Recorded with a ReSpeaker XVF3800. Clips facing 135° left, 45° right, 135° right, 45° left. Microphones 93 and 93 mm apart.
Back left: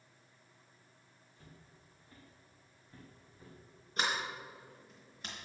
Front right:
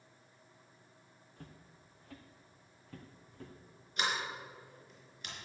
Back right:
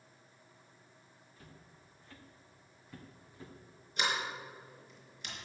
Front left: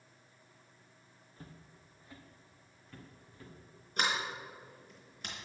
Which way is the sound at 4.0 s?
85° left.